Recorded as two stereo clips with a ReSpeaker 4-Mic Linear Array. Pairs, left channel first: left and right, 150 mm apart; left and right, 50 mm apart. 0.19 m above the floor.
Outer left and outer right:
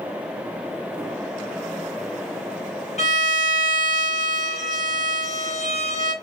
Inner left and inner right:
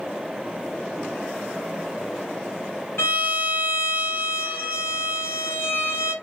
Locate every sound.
3.0 s a violin: 55° left (ahead or behind), 1.6 m